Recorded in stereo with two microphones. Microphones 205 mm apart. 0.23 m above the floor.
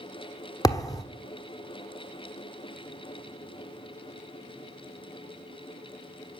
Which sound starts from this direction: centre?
A thud, at 0.6 s.